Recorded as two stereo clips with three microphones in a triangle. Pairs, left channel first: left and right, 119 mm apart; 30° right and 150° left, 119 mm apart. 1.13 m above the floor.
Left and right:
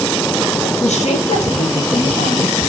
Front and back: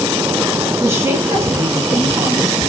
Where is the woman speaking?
85° left, 1.8 m.